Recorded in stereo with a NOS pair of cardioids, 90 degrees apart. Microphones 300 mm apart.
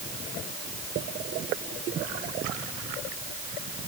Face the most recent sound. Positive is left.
No sound to turn to.